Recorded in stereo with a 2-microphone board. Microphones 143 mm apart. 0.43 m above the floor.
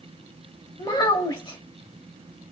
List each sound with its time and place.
0.8 s a child speaking: 35° left (ahead or behind), 1.0 m